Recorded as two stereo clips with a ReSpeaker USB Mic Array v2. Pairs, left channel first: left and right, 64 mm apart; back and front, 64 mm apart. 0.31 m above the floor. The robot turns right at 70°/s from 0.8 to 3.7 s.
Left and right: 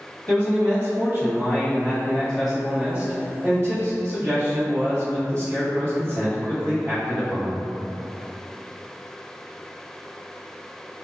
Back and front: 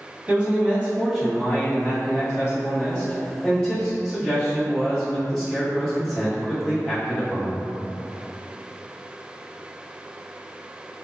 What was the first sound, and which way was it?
A man speaking, 60° left.